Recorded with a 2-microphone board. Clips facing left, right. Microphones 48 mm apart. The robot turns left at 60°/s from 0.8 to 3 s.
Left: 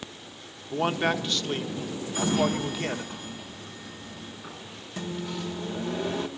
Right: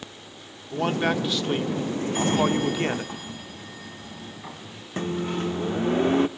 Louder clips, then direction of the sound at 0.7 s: Right 1 dB; 20° left.